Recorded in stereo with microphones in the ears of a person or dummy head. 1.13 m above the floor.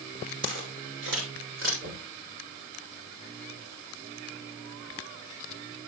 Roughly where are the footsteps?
Right.